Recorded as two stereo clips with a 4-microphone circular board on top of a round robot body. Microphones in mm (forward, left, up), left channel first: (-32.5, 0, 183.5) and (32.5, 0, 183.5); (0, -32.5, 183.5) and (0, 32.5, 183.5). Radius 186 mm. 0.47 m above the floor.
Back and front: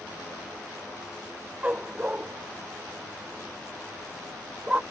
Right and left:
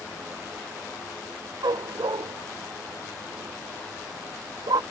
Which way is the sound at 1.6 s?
70° left.